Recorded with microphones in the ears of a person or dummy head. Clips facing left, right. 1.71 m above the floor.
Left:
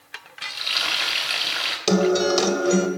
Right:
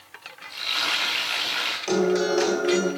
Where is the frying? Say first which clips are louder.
Even; 30° left (ahead or behind), 4 m.